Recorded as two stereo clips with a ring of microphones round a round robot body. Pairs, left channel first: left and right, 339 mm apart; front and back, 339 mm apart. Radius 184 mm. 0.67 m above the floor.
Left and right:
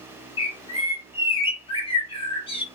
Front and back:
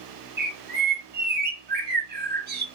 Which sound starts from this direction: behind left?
A bird, at 0.4 s.